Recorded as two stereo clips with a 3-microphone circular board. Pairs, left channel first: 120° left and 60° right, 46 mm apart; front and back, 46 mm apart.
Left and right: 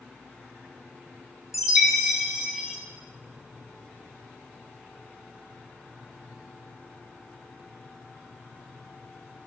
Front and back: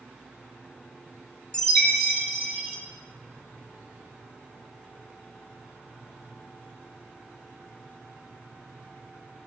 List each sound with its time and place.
1.5 s a chime: 15° left, 1.5 m